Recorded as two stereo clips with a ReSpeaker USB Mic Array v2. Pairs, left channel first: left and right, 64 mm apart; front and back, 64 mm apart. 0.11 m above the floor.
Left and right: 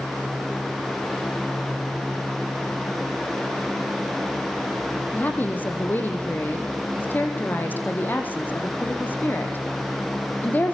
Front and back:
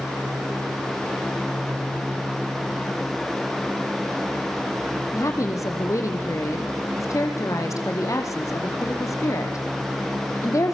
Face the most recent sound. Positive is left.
turn(degrees=30)